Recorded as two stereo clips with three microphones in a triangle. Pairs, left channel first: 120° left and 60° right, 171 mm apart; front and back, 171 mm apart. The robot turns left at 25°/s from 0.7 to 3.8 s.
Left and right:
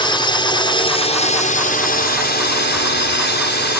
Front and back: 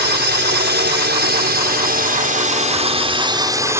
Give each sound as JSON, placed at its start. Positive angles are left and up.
{"t": 0.0, "sound": "a drone", "azimuth_deg": 180}